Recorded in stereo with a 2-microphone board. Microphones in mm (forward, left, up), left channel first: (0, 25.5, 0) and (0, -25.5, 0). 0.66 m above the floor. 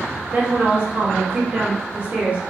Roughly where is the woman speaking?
Right.